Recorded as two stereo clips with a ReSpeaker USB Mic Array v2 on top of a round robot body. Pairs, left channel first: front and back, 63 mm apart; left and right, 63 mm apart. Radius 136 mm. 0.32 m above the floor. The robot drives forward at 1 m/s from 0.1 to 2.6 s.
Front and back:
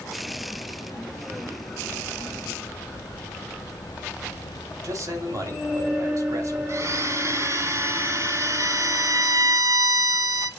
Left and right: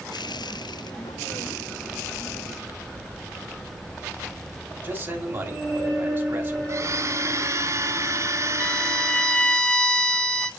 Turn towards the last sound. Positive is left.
turn(degrees=165)